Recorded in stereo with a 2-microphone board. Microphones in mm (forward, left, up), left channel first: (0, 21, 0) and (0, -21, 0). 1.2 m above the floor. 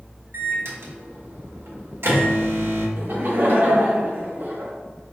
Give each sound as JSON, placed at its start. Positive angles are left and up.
{"t": 0.3, "sound": "a microwave", "side_deg": -80, "distance_m": 1.0}
{"t": 3.0, "sound": "laughter", "side_deg": -55, "distance_m": 1.1}